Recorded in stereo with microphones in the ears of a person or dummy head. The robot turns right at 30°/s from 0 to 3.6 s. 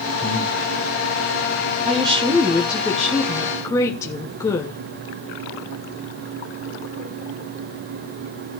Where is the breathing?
10° left (ahead or behind), 6.5 m; by 0.5 s centre (ahead or behind), 6.5 m.